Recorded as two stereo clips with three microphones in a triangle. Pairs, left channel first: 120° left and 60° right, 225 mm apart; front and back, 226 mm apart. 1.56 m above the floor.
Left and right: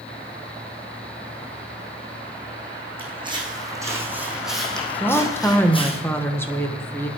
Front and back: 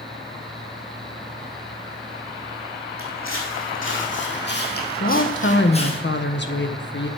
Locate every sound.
3.0 s footsteps: 5° left, 4 m; by 6.0 s 65° left, 3 m
5.0 s a woman speaking: 40° left, 1.4 m